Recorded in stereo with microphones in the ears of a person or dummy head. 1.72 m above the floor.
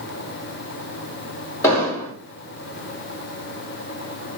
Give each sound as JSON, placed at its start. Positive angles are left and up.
{"t": 1.6, "sound": "an explosion", "side_deg": 15, "distance_m": 3.5}